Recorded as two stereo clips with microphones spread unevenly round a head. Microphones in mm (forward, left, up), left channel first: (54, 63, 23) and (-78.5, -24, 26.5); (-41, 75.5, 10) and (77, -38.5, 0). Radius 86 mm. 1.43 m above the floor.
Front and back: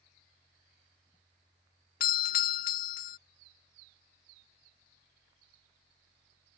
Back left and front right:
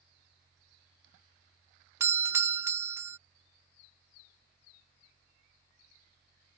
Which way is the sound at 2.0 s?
25° left.